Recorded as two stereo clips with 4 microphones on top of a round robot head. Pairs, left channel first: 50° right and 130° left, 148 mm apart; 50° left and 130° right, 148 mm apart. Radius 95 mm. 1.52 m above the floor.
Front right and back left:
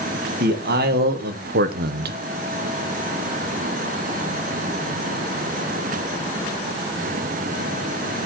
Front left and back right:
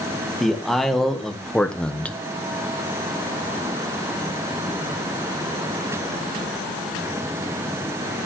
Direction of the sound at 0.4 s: 140° left.